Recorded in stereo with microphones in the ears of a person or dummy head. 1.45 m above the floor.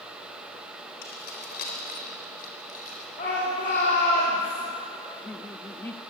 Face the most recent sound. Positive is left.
turn(degrees=10)  # may be behind; listen again after turning